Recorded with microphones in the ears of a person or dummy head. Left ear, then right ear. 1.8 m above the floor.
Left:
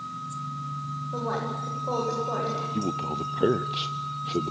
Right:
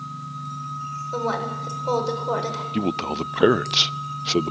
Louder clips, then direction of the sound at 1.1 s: Right 4 dB; 85° right.